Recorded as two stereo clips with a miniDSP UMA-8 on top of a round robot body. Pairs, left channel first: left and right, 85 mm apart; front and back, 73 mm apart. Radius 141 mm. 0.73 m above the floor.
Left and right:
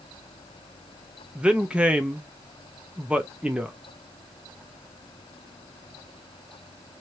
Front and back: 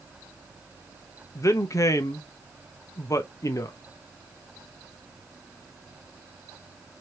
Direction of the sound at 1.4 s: 20° right.